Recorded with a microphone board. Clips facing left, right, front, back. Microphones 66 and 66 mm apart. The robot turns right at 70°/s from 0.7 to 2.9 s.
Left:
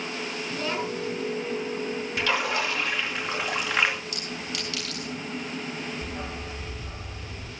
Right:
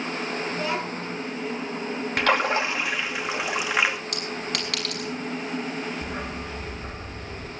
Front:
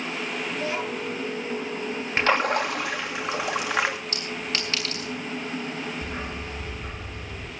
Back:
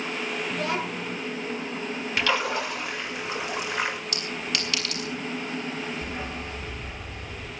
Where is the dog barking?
60° right, 3.5 m.